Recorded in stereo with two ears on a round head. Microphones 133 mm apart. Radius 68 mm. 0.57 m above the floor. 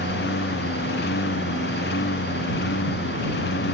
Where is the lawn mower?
85° left; by 3.8 s 90° left.